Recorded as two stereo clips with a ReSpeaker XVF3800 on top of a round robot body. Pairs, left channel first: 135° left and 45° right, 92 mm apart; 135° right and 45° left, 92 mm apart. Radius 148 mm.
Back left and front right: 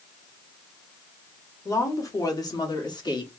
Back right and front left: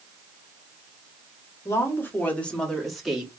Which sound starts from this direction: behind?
A woman speaking, at 1.6 s.